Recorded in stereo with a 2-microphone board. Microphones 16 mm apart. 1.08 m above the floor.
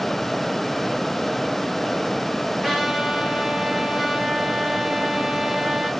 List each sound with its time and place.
2.6 s a trumpet: 50° right (ahead or behind), 3.5 m